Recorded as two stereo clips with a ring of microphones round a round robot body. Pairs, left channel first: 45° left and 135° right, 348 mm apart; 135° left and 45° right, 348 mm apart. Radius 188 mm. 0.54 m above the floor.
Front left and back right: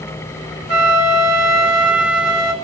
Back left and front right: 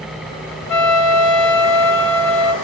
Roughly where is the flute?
Behind.